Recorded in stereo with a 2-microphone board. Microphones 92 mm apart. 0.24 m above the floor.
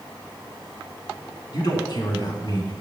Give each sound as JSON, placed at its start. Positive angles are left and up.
{"t": 1.5, "sound": "a man speaking", "side_deg": 55, "distance_m": 2.5}